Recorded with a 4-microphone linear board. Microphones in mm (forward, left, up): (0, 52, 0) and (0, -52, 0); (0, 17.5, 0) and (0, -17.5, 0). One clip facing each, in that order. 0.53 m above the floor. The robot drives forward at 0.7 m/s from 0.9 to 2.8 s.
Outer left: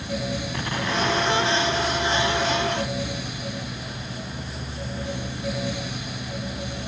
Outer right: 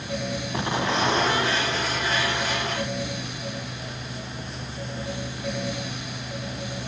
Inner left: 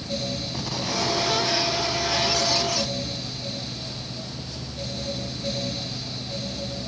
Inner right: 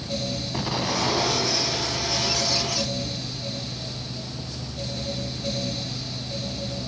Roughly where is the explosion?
Right.